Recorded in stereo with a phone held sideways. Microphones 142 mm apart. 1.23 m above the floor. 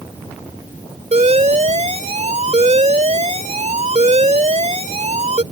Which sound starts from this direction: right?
An alarm, at 1.1 s.